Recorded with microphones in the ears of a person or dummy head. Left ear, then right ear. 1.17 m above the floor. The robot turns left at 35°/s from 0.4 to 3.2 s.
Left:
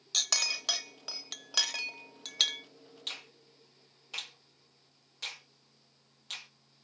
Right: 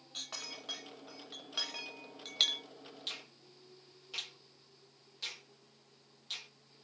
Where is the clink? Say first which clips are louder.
Left 14 dB; 70° left (ahead or behind), 0.6 m; by 2.6 s 5° right (ahead or behind), 0.6 m.